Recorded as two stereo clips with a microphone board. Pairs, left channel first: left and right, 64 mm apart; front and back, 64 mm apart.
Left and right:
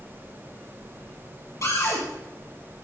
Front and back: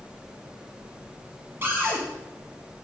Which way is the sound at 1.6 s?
125° left.